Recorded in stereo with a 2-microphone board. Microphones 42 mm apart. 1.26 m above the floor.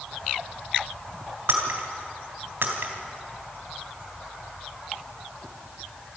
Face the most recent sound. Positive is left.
turn(degrees=-65)  # may be behind; listen again after turning